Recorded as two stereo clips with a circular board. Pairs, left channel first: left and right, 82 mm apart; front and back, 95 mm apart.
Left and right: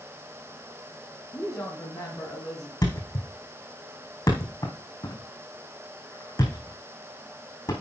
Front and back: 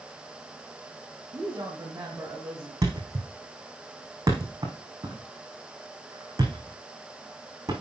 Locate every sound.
1.3 s a woman speaking: 135° left, 1.8 m; by 2.7 s 100° left, 1.8 m
2.8 s a thud: 125° left, 3 m